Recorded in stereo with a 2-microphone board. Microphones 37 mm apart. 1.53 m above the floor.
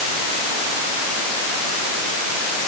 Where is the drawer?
I don't hear a drawer.